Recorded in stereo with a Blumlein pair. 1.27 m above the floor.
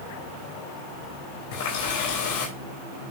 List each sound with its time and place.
1.5 s a running tap: 45° left, 4 m